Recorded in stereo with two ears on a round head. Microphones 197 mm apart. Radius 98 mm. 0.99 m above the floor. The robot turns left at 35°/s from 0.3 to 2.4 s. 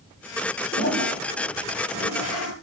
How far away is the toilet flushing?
About 6 m.